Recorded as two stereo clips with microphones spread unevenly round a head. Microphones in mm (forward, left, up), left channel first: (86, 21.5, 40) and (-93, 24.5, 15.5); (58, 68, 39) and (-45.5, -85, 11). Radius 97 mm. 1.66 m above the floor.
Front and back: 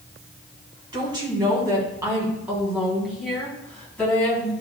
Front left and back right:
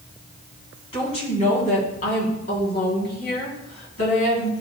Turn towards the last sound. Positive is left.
turn(degrees=75)